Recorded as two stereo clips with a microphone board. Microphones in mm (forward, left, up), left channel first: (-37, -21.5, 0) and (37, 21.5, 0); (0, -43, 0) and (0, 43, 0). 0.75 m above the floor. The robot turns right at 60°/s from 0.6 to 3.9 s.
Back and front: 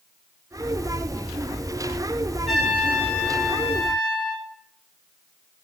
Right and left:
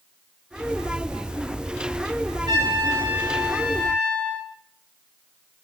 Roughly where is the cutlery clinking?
No cutlery clinking in this recording.